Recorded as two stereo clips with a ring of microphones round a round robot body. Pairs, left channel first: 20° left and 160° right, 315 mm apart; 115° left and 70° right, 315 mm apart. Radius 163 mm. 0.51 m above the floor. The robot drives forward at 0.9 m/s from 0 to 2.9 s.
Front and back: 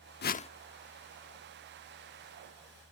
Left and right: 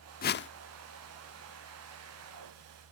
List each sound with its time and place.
0.2 s a whoosh: 65° left; by 0.5 s 90° left